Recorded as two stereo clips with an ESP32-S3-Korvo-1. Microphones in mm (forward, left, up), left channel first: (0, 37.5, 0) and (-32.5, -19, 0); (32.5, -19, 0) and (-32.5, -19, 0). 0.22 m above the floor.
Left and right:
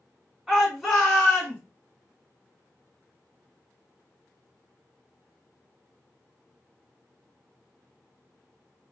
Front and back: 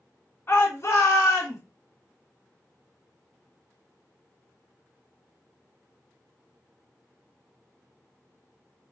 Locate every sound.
0.5 s a shout: 35° right, 2.5 m; by 1.6 s 10° right, 3 m